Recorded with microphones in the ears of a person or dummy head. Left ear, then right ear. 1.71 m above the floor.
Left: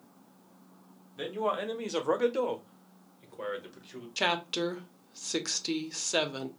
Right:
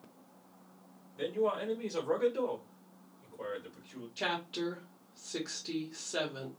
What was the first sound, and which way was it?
A man speaking, 35° left (ahead or behind).